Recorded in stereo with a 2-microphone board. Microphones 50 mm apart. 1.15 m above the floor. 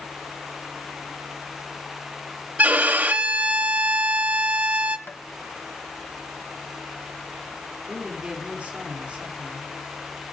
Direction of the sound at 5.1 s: 40° left (ahead or behind).